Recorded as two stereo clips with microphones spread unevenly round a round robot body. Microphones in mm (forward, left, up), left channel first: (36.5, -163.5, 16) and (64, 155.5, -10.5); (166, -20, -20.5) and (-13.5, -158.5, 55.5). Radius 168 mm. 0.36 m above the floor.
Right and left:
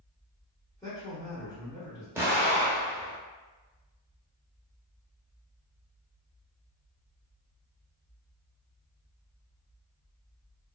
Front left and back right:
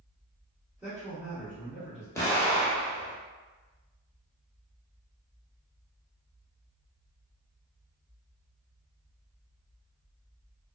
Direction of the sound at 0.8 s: 20° right.